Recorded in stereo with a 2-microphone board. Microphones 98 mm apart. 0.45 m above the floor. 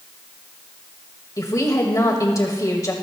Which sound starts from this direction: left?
A woman speaking, at 1.4 s.